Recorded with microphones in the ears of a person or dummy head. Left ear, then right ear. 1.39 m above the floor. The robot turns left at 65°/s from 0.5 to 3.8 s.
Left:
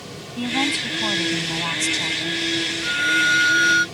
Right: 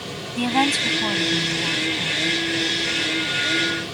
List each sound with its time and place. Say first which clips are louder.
0.4 s a woman speaking: right 2 dB; 150° right; by 2.4 s 85° left
2.8 s a violin: left 4 dB; 135° left; by 3.9 s 75° left